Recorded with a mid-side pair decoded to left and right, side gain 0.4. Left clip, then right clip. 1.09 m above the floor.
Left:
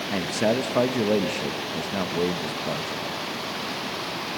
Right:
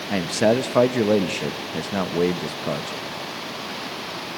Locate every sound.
0.1 s a man speaking: 45° right, 0.8 m